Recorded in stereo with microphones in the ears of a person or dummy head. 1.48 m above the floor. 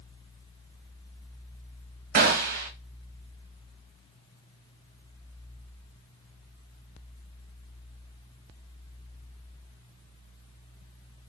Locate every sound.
2.1 s a gunshot: 50° right (ahead or behind), 1.2 m